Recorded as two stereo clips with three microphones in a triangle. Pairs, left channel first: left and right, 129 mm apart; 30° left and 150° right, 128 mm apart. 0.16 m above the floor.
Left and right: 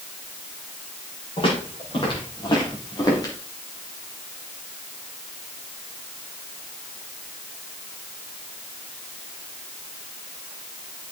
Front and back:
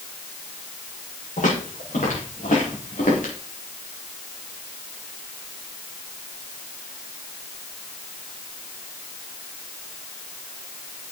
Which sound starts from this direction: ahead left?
Footsteps, at 1.4 s.